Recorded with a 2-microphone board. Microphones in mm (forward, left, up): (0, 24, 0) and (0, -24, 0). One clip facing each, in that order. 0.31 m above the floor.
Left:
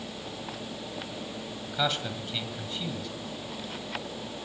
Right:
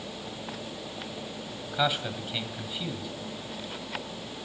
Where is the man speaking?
10° right (ahead or behind), 1.6 m.